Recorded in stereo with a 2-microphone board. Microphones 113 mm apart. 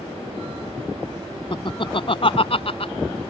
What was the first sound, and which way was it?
Laughter, 45° left (ahead or behind).